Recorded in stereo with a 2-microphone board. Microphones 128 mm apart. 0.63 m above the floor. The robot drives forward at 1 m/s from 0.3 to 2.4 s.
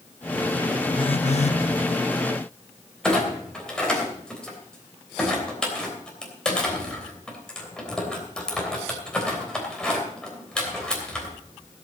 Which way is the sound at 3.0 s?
5° left (ahead or behind).